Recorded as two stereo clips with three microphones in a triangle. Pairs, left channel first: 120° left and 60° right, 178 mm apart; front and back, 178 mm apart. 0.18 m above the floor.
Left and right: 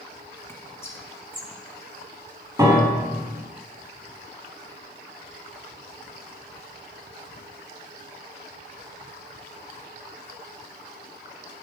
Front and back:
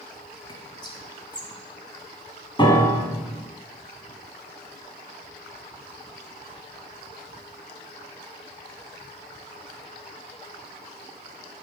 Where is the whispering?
50° left, 1.3 m.